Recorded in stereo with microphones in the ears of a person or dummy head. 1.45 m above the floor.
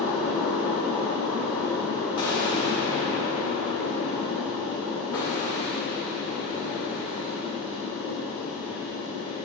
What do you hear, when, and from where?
0.0 s a fan: 5° right (ahead or behind), 1.4 m
2.2 s an explosion: 20° left (ahead or behind), 1.5 m